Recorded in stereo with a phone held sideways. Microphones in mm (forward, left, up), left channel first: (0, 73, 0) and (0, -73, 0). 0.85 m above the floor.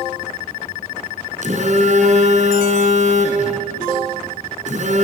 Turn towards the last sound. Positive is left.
turn(degrees=-55)  # may be behind; listen again after turning